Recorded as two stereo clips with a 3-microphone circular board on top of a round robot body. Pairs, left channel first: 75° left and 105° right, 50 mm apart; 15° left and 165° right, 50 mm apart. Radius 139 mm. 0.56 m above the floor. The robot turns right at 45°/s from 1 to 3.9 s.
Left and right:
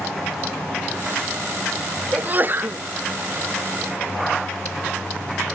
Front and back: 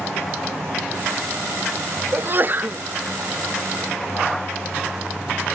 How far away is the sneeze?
About 0.8 m.